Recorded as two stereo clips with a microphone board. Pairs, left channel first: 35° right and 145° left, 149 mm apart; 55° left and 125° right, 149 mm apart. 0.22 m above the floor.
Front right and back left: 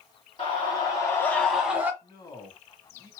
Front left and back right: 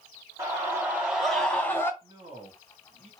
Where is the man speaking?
90° right, 2.5 m.